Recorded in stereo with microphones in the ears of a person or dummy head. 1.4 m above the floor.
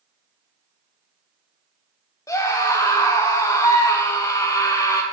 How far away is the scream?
About 0.8 m.